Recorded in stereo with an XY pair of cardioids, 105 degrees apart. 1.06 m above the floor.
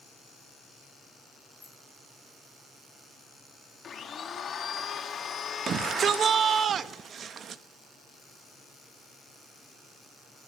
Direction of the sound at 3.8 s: 50° left.